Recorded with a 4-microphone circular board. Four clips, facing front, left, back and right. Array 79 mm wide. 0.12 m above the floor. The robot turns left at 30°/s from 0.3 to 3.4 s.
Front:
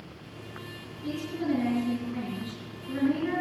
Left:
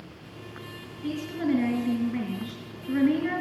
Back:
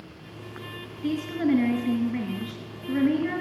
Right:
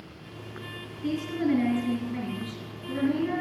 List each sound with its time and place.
1.0 s a woman speaking: straight behind, 2 m; by 3.4 s 110° left, 2 m